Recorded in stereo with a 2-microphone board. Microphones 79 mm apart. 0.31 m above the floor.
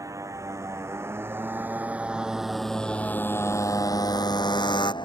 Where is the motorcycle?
45° right (ahead or behind); by 5.1 s 75° left (ahead or behind).